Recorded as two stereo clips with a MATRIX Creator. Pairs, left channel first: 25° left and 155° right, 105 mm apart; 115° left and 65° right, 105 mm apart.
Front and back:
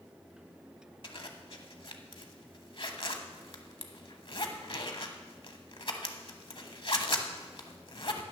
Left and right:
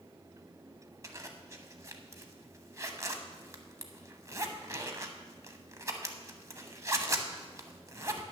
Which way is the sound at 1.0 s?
10° right.